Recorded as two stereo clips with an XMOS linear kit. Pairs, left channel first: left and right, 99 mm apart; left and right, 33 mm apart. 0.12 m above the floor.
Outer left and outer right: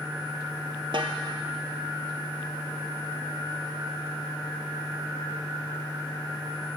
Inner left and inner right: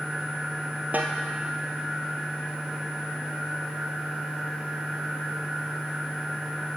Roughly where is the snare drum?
Right.